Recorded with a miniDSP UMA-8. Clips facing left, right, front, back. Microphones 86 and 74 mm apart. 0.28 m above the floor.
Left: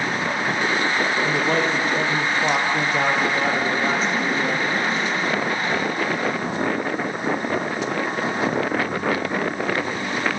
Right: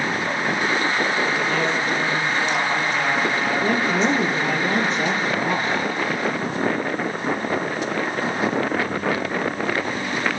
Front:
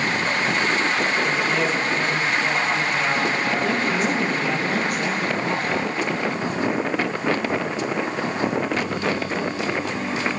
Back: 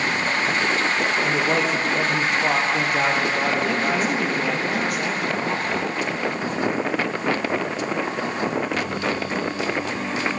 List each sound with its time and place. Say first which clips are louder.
1.2 s a man speaking: left 1 dB, back 1 dB; 140° left, 6 m
3.6 s a woman speaking: right 2 dB, even; 95° right, 5.5 m